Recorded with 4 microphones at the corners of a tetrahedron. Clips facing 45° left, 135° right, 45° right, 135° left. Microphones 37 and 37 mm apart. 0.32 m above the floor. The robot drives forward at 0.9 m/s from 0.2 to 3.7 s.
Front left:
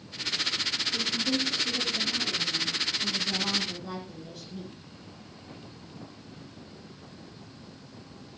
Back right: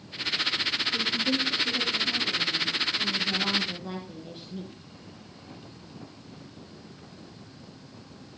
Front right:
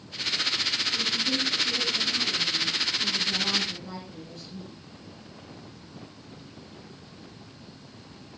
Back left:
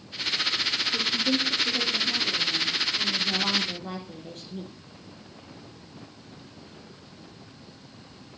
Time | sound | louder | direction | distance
0.9 | a woman speaking | back right 1 dB, back left 2 dB | 145° left | 5.5 m